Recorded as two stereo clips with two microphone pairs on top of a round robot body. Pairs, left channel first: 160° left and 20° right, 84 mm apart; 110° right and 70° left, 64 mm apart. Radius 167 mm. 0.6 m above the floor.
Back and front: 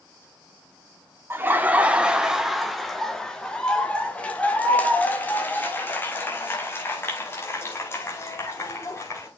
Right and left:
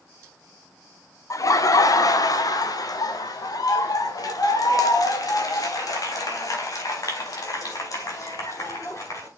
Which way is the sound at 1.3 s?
80° right.